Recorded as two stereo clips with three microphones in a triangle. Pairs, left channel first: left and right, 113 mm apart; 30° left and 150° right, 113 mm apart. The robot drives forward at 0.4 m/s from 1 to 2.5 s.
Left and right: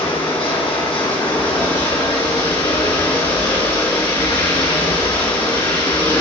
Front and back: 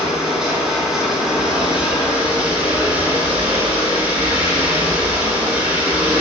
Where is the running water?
125° left, 3 m; by 6.2 s 135° left, 3.5 m.